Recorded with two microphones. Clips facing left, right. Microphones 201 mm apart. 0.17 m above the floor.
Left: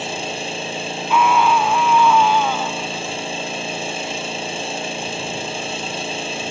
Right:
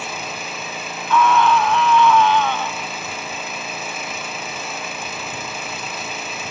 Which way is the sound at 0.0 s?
30° left (ahead or behind).